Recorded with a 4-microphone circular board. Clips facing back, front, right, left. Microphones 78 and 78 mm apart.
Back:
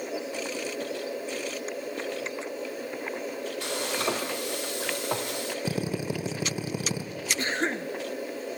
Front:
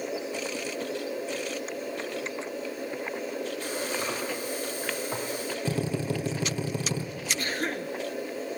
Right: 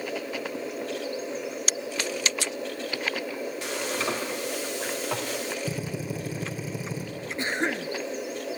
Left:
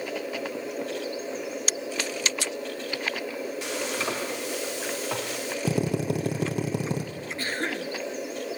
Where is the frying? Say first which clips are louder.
Back 2 dB, right 1 dB; straight behind, 2.5 m.